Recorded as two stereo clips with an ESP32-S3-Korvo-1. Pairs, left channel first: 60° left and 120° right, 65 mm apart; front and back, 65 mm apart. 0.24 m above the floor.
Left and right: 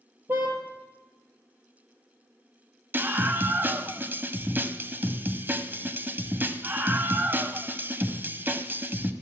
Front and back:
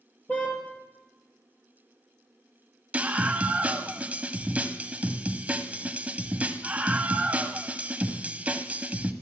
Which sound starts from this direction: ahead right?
A car horn, at 0.3 s.